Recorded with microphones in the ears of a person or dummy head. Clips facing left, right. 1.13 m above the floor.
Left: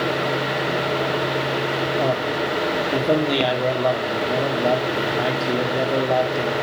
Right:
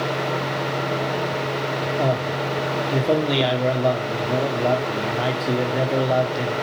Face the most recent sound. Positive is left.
turn(degrees=-5)  # may be behind; listen again after turning